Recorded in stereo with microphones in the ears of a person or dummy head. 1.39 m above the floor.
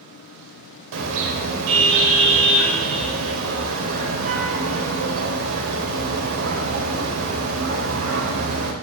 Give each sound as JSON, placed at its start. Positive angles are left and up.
{"t": 0.9, "sound": "a car horn", "side_deg": -70, "distance_m": 3.5}